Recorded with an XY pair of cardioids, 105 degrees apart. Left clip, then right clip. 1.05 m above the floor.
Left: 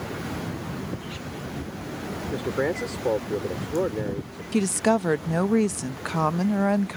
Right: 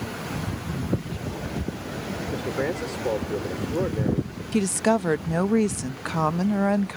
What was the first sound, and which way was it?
A man speaking, 15° left.